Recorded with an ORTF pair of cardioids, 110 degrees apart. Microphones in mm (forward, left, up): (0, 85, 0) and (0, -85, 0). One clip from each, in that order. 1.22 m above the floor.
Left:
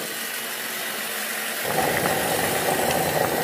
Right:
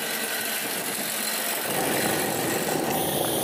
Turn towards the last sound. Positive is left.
turn(degrees=40)